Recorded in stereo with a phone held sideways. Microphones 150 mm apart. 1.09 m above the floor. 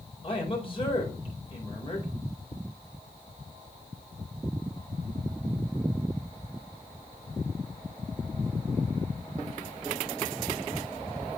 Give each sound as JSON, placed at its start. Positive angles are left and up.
{"t": 0.2, "sound": "a man speaking", "side_deg": 40, "distance_m": 4.0}